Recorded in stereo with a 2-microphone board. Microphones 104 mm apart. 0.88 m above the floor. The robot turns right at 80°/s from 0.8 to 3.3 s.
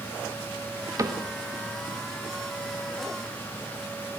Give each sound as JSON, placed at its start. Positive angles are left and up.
{"t": 1.0, "sound": "a cupboard door", "side_deg": -30, "distance_m": 1.3}